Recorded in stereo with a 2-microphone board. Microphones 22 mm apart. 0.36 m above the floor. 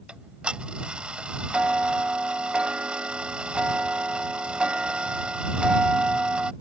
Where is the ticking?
65° right (ahead or behind).